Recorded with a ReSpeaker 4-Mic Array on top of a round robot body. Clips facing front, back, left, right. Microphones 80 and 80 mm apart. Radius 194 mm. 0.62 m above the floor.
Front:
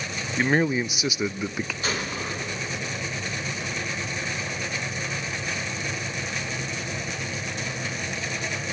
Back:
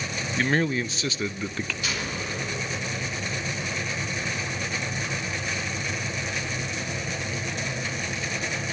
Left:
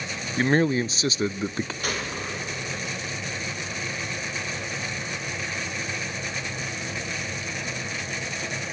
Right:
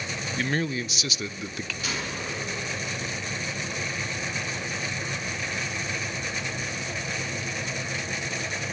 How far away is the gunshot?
About 3 m.